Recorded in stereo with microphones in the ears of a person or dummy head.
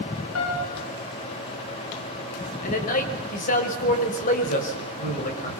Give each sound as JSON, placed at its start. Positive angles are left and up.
{"t": 0.3, "sound": "a piano", "side_deg": 80, "distance_m": 6.5}
{"t": 2.6, "sound": "a man speaking", "side_deg": 40, "distance_m": 5.5}